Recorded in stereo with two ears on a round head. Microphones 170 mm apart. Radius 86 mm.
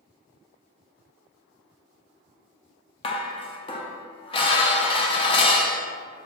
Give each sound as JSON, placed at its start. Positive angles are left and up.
{"t": 3.0, "sound": "dishes clattering", "side_deg": 30, "distance_m": 0.5}